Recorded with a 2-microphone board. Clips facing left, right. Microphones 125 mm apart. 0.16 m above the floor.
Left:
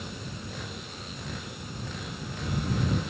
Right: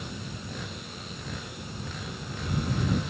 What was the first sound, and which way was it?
Only background noise.